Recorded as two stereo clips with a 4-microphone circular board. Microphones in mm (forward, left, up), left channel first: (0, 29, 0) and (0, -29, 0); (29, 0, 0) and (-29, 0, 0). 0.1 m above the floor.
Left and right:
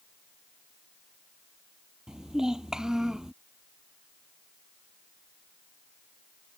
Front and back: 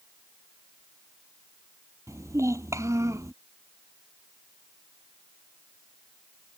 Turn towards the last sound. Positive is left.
turn(degrees=-170)